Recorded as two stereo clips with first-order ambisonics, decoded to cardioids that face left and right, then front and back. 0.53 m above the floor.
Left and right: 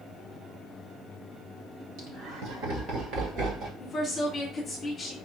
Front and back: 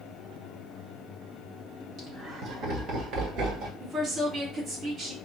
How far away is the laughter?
About 3.5 m.